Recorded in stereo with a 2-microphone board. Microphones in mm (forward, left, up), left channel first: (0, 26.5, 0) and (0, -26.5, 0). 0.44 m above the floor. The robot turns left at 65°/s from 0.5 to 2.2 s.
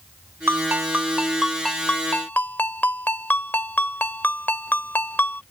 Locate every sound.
0.5 s a ringtone: 115° right; by 5.4 s 135° left